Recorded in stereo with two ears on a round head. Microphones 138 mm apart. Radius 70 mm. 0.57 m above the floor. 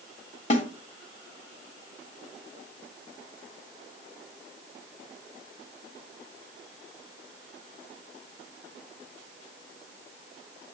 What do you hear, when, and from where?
0.5 s a snare drum: 45° left (ahead or behind), 1.6 m